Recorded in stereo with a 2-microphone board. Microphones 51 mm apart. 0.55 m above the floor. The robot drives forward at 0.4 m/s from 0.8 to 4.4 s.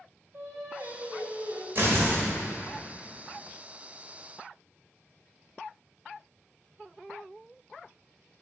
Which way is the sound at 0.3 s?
80° right.